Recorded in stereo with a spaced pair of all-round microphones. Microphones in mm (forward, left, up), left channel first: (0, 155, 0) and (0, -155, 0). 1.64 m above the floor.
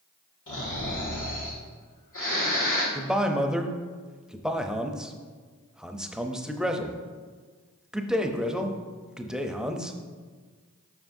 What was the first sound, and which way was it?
Snoring, 75° left (ahead or behind).